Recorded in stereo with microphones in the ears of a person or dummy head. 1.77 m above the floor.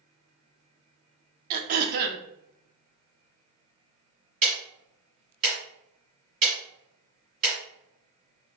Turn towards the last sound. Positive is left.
turn(degrees=-35)  # may be behind; listen again after turning